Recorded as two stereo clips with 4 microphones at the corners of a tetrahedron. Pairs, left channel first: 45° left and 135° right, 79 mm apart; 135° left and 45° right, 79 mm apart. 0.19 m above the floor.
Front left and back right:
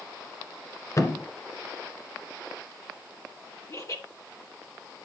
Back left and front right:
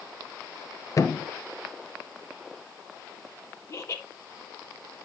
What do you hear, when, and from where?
1.0 s a thud: 90° left, 1.3 m
3.7 s laughter: 85° left, 4 m